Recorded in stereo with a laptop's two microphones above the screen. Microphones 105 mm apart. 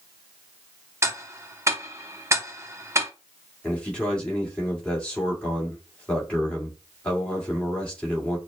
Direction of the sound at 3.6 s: 10° left (ahead or behind).